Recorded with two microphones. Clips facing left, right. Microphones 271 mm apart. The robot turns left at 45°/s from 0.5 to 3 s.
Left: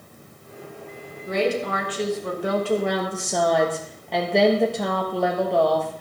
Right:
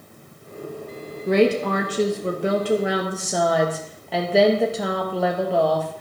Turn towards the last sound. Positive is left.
turn(degrees=-175)